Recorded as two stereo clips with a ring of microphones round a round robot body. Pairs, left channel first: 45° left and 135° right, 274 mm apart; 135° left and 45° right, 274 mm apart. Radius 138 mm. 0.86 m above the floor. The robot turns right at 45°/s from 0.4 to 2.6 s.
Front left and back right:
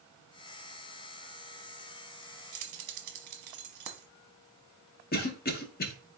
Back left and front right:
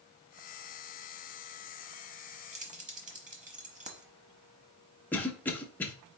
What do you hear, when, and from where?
2.5 s keys jangling: 115° right, 1.1 m; by 4.0 s 110° right, 1.1 m
5.1 s a cough: 55° left, 0.8 m